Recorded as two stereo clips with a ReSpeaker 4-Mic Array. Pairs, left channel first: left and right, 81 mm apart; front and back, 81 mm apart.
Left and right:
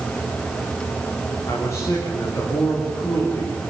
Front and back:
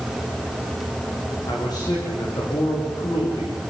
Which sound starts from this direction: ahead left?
A man speaking, at 1.5 s.